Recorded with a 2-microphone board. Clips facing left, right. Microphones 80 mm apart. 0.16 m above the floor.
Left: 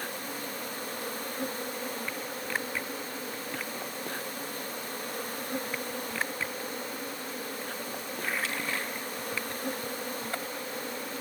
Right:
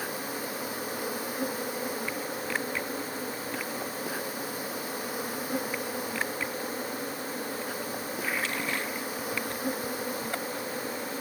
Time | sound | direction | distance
0.0 | an insect | 5° right (ahead or behind) | ?